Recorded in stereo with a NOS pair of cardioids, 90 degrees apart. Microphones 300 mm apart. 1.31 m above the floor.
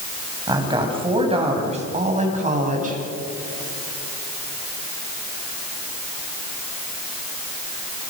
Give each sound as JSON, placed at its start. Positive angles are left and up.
{"t": 0.5, "sound": "a woman speaking", "azimuth_deg": -15, "distance_m": 8.0}